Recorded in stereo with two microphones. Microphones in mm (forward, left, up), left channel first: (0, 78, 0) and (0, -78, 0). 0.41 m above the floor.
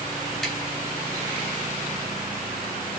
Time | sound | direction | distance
0.4 | tapping | centre (ahead or behind) | 2 m